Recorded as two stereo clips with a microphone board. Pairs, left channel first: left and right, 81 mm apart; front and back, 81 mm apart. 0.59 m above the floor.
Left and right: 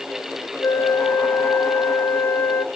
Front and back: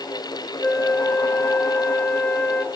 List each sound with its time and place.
0.6 s a flute: 60° left, 0.7 m